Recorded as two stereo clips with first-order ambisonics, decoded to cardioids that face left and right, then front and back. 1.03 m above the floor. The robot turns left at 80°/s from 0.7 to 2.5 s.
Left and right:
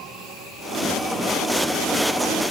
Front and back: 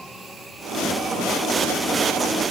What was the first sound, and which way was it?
Only background noise.